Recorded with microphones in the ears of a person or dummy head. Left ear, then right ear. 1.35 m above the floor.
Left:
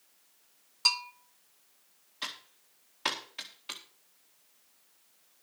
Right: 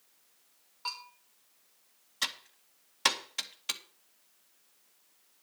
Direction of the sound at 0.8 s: 80° left.